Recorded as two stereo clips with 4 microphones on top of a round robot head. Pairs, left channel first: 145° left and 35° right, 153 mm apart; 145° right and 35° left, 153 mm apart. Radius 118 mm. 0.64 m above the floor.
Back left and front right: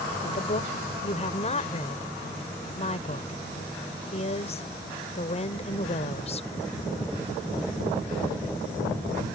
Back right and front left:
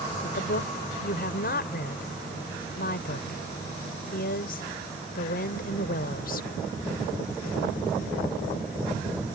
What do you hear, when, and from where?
0.2 s a woman speaking: 165° right